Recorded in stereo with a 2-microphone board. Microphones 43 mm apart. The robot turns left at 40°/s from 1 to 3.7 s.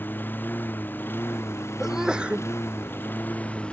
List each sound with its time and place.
0.0 s a lawn mower: 130° left; by 3.7 s 25° left
1.8 s a sneeze: 5° right (ahead or behind); by 2.5 s 35° right (ahead or behind)